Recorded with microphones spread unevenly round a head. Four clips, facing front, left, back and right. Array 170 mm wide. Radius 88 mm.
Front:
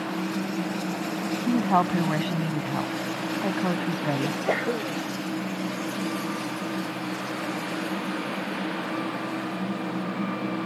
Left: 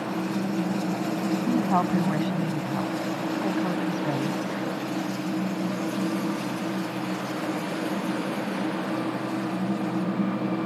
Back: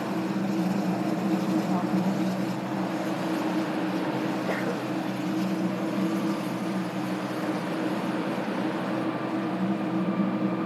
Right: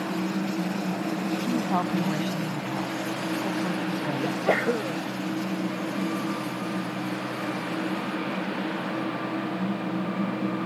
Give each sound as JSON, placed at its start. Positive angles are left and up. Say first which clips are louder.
{"t": 1.5, "sound": "a woman speaking", "louder": "left 3 dB, front 4 dB", "azimuth_deg": 0}
{"t": 4.2, "sound": "a sneeze", "louder": "right 4 dB, front 2 dB", "azimuth_deg": -65}